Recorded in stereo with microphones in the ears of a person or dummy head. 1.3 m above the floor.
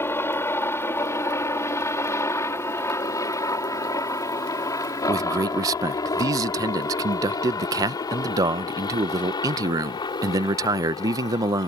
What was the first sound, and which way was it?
A helicopter, 10° left (ahead or behind).